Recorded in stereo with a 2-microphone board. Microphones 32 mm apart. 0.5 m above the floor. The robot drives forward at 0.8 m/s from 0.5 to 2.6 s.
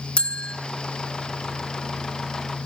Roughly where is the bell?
Left.